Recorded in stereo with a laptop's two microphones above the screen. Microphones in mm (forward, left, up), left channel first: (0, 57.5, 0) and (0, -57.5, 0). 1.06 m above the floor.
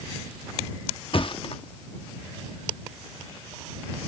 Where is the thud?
50° left (ahead or behind).